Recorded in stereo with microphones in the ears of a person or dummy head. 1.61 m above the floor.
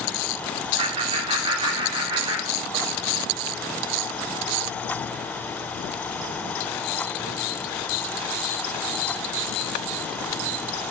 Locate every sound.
0.8 s laughter: 30° right (ahead or behind), 4.5 m; by 2.9 s 20° right (ahead or behind), 5.5 m